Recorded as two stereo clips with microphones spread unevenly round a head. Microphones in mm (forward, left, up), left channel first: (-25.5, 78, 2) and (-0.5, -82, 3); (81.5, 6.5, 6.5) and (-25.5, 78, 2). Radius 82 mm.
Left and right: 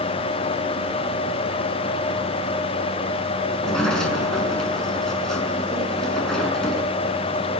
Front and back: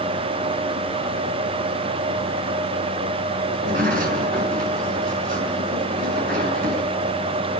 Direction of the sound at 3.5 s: 175° right.